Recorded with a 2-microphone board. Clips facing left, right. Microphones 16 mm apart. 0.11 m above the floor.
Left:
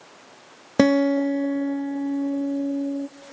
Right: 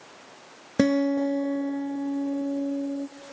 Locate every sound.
0.8 s a guitar: 25° left (ahead or behind), 0.8 m